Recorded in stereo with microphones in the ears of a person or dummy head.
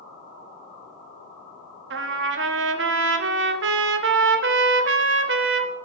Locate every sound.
1.9 s a trumpet: 60° right (ahead or behind), 0.6 m